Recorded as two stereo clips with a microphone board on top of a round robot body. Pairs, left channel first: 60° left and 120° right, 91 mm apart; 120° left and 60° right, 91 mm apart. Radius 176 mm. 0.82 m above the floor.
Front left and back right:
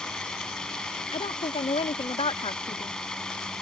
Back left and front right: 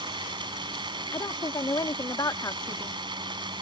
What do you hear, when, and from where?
0.0 s running water: 25° right
1.1 s a woman speaking: 70° left